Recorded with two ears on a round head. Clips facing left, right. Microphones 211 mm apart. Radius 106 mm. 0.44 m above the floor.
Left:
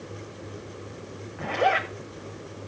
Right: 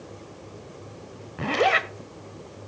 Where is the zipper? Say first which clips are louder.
Right 2 dB; 50° right (ahead or behind), 0.9 m.